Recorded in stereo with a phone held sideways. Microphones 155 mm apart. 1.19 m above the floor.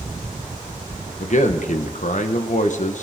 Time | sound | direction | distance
1.2 | a man speaking | 60° left (ahead or behind) | 1.2 m